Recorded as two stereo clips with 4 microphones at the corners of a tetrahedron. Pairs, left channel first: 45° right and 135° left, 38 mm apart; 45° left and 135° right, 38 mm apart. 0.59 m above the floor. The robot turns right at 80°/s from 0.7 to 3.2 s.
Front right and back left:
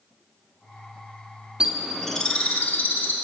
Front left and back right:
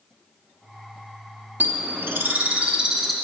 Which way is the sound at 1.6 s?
165° right.